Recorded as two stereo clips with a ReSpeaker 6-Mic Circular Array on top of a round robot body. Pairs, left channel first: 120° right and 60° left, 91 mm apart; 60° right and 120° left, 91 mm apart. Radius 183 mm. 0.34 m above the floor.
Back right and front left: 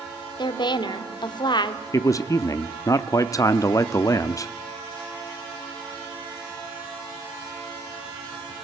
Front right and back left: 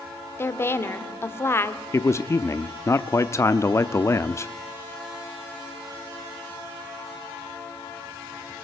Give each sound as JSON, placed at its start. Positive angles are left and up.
{"t": 0.4, "sound": "a woman speaking", "azimuth_deg": -115, "distance_m": 2.0}
{"t": 1.9, "sound": "a man speaking", "azimuth_deg": -100, "distance_m": 0.9}